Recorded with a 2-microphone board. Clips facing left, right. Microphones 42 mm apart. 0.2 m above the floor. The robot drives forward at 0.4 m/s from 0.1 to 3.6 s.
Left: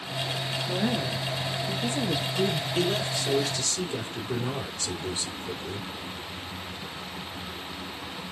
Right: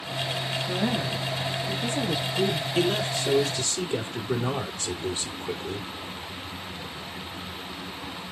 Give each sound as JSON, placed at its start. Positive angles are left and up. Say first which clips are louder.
{"t": 0.7, "sound": "a woman speaking", "louder": "even", "side_deg": 5, "distance_m": 3.0}
{"t": 2.8, "sound": "a man speaking", "louder": "right 3 dB", "side_deg": -25, "distance_m": 5.0}